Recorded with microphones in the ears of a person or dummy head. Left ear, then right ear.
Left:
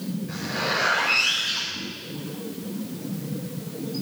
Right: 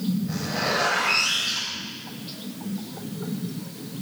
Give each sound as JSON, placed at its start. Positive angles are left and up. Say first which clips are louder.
{"t": 0.3, "sound": "a zipper", "louder": "left 1 dB", "side_deg": 0, "distance_m": 7.0}